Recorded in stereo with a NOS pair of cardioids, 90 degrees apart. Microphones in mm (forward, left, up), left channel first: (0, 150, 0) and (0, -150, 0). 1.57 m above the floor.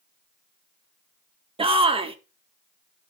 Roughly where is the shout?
Ahead.